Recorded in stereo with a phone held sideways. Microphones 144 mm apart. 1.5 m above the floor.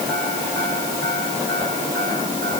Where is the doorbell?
No doorbell in this recording.